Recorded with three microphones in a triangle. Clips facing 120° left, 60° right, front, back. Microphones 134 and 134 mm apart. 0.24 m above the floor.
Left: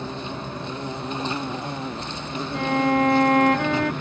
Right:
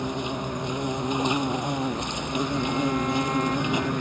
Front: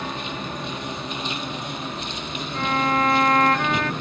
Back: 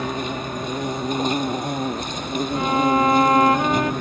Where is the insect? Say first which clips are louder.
Right 3 dB, back 5 dB; 135° right.